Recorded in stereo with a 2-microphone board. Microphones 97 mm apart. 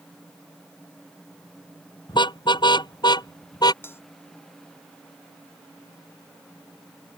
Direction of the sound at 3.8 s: 25° left (ahead or behind).